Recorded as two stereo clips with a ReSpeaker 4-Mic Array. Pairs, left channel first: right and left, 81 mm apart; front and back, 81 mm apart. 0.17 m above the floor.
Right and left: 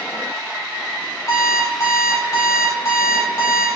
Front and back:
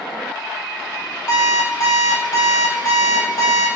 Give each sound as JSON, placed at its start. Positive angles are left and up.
{"t": 1.3, "sound": "an alarm clock", "azimuth_deg": -40, "distance_m": 3.5}